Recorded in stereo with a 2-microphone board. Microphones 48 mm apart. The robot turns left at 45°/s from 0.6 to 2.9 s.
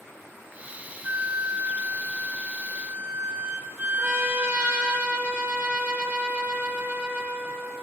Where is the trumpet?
30° right (ahead or behind), 2 m.